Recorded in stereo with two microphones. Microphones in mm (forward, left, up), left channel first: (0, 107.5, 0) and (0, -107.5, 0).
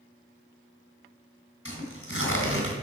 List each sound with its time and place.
1.6 s tearing paper: 85° left, 2.5 m